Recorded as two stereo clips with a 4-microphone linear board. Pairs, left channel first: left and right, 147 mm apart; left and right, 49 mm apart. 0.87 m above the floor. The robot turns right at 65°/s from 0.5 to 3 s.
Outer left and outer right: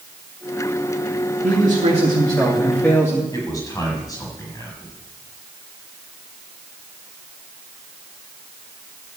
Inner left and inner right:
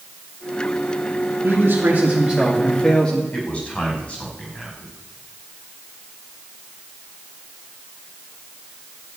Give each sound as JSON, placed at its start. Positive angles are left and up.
{"t": 1.4, "sound": "a man speaking", "azimuth_deg": -80, "distance_m": 2.0}
{"t": 3.3, "sound": "a man speaking", "side_deg": 25, "distance_m": 5.5}